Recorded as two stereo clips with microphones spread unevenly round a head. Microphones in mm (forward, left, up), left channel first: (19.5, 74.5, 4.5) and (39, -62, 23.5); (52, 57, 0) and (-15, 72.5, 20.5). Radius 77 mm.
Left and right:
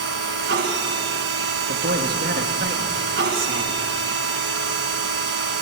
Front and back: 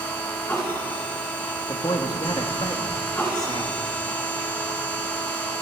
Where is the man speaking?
70° right, 2.5 m.